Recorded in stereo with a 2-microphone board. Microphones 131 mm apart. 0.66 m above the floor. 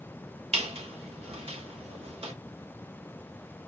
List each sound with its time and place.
0.5 s a squeak: 50° right (ahead or behind), 0.8 m